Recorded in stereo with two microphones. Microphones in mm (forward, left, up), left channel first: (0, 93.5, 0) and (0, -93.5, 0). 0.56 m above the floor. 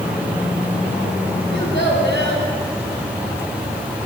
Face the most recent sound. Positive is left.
turn(degrees=80)